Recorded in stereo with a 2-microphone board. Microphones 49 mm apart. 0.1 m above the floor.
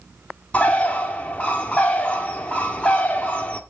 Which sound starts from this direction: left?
A bird, at 0.5 s.